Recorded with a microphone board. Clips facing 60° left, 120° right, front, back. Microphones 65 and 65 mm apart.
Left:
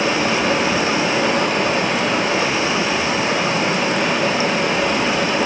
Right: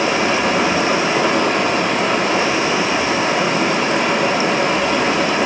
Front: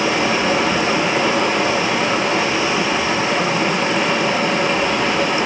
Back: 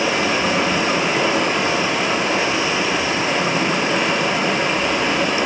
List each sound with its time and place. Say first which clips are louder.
0.0 s running water: right 1 dB, front 1 dB; 90° right, 4.5 m